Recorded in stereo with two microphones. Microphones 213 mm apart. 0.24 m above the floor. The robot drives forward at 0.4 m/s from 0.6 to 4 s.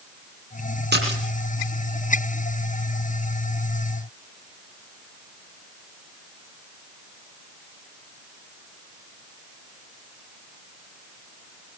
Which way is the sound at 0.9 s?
50° right (ahead or behind).